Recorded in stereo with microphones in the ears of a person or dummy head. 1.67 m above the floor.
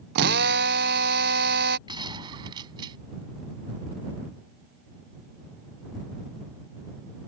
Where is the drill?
60° right (ahead or behind).